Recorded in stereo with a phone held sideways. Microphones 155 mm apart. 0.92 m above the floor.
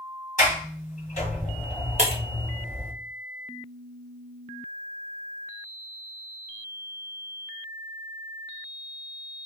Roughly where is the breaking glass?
Right.